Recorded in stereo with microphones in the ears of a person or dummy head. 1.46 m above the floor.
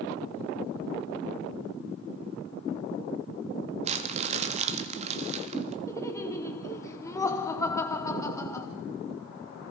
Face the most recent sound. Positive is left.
turn(degrees=15)  # may be behind; listen again after turning